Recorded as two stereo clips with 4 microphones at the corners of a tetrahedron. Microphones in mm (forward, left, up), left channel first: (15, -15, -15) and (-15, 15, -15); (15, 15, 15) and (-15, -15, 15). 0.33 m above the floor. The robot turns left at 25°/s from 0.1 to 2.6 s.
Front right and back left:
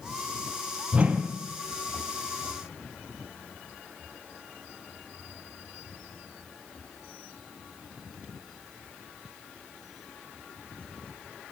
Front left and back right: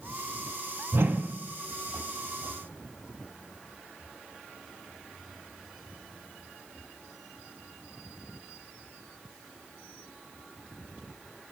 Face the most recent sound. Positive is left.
turn(degrees=155)